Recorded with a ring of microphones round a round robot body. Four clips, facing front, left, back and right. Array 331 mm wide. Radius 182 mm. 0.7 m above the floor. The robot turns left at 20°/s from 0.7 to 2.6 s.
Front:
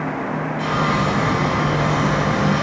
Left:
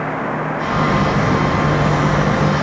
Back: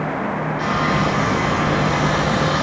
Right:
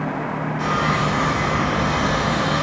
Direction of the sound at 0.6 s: 100° right.